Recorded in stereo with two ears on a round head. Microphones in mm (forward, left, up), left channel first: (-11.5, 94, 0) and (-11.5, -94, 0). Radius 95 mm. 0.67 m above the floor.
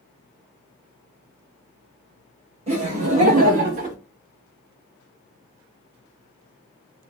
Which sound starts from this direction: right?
Laughter, at 2.7 s.